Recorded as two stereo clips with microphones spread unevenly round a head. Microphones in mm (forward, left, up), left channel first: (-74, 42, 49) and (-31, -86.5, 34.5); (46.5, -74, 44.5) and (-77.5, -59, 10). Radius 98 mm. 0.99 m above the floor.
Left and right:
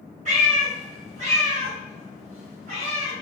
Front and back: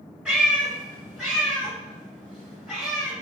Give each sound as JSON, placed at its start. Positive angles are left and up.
{"t": 0.2, "sound": "a cat meowing", "azimuth_deg": -100, "distance_m": 1.6}